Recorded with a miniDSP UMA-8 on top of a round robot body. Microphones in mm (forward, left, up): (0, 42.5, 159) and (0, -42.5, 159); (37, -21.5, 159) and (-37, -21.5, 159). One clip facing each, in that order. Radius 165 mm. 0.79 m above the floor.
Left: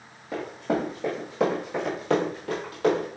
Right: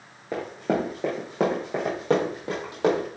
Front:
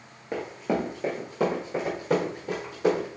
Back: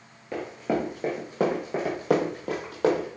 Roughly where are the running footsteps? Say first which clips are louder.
Right 1 dB, even; ahead right.